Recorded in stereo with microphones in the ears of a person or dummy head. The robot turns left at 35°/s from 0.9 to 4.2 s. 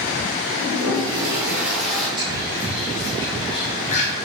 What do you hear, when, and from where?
0.6 s a toilet flushing: 150° right, 3.5 m; by 2.1 s 170° left, 3.5 m
2.2 s whispering: 20° right (ahead or behind), 2.5 m; by 4.1 s 45° left (ahead or behind), 2.5 m